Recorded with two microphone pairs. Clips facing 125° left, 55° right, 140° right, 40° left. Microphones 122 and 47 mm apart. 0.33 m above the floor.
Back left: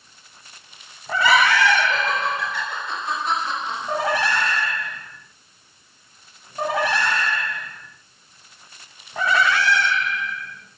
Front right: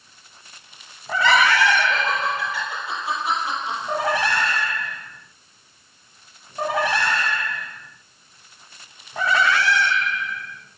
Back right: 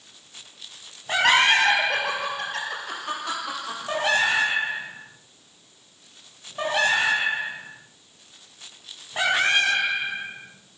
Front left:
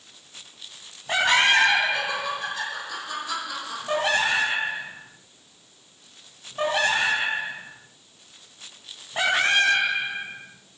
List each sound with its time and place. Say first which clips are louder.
1.2 s laughter: even, back right 1 dB; 155° right, 6 m; by 3.8 s 135° right, 8 m